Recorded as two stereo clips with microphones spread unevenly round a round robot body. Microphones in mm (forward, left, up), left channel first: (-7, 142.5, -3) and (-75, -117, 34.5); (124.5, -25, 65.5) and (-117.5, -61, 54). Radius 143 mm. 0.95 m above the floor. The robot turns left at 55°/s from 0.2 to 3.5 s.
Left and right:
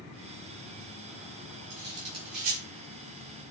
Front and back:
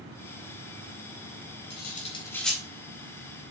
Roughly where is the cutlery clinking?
Ahead right.